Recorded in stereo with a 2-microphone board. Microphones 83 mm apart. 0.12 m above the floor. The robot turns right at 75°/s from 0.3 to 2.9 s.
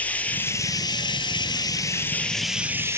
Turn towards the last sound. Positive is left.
turn(degrees=-145)